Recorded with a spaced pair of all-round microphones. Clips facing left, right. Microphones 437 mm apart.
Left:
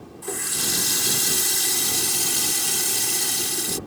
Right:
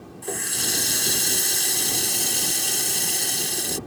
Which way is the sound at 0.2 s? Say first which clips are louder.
Even; 20° left (ahead or behind).